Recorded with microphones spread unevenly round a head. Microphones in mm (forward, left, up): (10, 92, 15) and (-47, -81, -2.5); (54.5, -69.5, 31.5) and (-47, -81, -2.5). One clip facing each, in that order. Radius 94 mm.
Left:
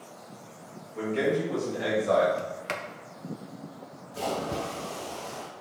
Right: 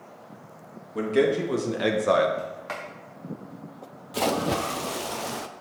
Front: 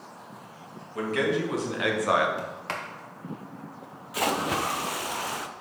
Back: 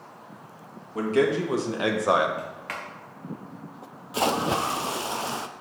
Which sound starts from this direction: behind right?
A man speaking, at 0.9 s.